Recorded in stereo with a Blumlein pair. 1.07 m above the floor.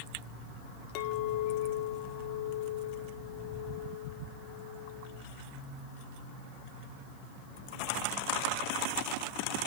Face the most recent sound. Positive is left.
turn(degrees=45)